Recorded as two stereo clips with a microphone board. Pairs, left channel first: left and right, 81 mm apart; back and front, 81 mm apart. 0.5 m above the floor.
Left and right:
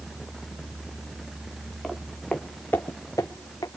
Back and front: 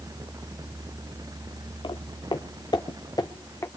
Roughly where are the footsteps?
Behind.